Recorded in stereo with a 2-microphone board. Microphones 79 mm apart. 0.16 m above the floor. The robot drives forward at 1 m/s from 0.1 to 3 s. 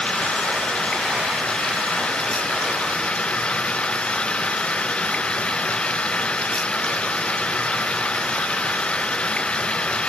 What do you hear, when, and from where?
0.0 s running water: 10° left (ahead or behind); by 10.1 s 15° left (ahead or behind)